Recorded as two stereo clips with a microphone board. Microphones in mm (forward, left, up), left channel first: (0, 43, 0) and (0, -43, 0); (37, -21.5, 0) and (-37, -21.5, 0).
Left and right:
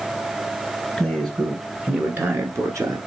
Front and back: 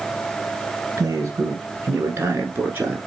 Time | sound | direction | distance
1.0 | a man speaking | 175° left | 1.2 m